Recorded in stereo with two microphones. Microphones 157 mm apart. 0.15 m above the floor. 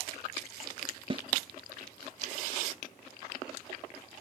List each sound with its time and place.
1.1 s a snare drum: 35° right (ahead or behind), 0.6 m